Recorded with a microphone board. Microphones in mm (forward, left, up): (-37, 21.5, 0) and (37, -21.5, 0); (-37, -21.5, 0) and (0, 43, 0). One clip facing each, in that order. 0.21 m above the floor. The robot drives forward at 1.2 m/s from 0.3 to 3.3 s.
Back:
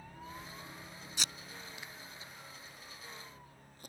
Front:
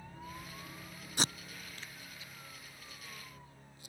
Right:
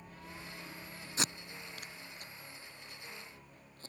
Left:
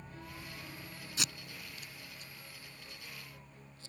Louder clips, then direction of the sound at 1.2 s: Front 7 dB, right 4 dB; 65° right.